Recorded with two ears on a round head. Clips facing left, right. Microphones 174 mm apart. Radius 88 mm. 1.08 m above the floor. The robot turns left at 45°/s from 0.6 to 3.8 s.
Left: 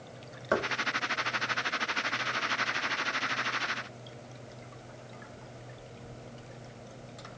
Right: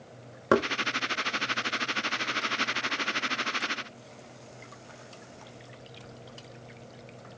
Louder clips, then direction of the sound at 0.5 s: Right 6 dB; 65° right (ahead or behind).